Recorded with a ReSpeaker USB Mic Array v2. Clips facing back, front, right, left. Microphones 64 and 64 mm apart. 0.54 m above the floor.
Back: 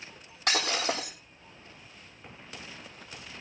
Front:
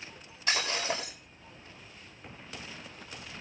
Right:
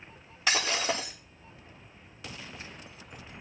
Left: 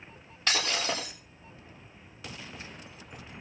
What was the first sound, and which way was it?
Breaking glass, 175° right.